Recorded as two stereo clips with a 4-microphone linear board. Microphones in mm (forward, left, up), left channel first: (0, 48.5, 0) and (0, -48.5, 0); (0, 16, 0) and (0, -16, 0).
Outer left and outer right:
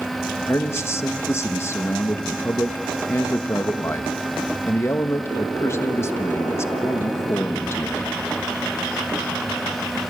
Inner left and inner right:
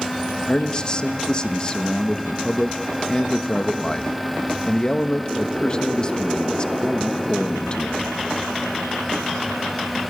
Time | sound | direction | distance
0.5 | a man speaking | 30° left (ahead or behind) | 1.1 m